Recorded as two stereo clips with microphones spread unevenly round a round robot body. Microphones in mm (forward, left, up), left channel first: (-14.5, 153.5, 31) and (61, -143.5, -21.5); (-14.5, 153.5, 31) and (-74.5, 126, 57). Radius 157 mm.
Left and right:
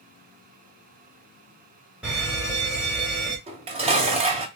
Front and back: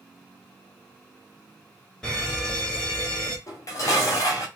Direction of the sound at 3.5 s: 10° right.